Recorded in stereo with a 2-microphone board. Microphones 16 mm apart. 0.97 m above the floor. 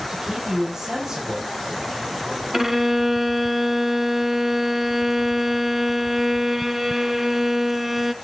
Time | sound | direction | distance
0.1 | a man speaking | 35° right (ahead or behind) | 8 m
2.5 | a violin | 20° right (ahead or behind) | 0.8 m